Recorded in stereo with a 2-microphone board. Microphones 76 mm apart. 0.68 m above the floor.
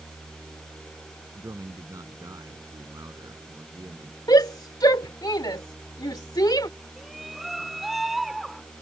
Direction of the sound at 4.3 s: 65° left (ahead or behind).